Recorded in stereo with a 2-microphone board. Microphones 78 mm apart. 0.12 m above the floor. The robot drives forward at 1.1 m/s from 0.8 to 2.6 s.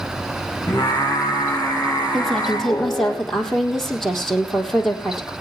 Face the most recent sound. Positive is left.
turn(degrees=5)  # may be behind; listen again after turning